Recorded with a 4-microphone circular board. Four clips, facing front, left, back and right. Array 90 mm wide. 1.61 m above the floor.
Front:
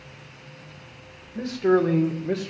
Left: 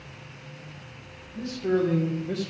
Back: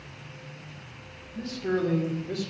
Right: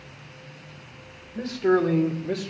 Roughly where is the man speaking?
Ahead right.